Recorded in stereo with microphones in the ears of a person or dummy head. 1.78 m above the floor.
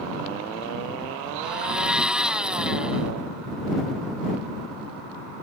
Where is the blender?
5° right (ahead or behind).